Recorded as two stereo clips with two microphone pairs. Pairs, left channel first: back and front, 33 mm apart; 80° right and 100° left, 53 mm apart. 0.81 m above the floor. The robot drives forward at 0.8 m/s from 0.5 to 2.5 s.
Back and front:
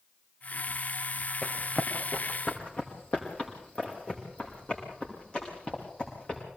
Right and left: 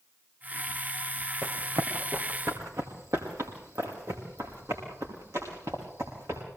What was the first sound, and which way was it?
Running footsteps, 110° left.